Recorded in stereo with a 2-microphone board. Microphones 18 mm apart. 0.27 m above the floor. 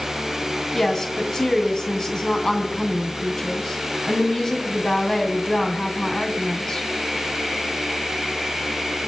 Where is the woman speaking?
30° left (ahead or behind), 2.5 m.